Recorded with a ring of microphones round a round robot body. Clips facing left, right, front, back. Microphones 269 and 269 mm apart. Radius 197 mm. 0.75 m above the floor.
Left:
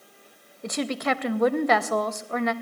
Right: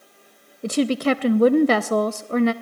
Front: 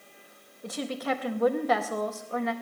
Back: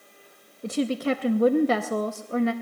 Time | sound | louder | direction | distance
0.6 | a woman speaking | right 8 dB, back 7 dB | 135° right | 0.5 m